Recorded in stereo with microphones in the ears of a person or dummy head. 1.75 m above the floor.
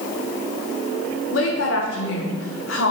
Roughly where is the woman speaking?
Left.